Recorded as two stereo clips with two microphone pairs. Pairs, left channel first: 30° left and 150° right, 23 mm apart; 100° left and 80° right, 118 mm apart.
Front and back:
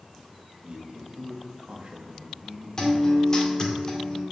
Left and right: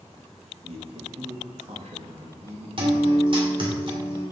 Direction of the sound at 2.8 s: 35° right.